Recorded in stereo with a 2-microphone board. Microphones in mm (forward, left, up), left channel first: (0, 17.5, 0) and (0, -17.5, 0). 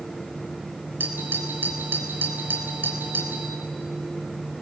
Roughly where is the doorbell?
Right.